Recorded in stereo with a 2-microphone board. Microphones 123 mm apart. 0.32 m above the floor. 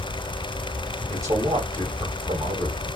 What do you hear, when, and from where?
1.1 s a man speaking: 30° right (ahead or behind), 2.0 m